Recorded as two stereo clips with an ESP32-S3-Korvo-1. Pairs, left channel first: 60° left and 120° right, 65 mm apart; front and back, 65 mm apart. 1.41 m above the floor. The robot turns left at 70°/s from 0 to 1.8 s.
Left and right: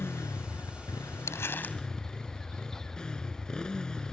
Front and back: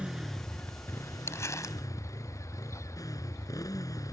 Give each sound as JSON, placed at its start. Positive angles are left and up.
{"t": 0.0, "sound": "a motorcycle", "azimuth_deg": 110}
{"t": 1.3, "sound": "crumpling", "azimuth_deg": 35}